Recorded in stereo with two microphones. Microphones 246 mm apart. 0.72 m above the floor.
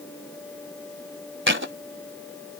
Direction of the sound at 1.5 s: 50° right (ahead or behind).